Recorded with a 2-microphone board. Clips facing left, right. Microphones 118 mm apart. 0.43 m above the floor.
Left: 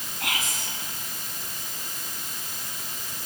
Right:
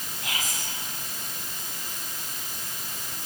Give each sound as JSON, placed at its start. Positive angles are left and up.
{"t": 0.2, "sound": "whispering", "side_deg": 70, "distance_m": 5.0}